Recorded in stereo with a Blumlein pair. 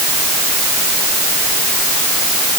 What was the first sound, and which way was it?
Only background noise.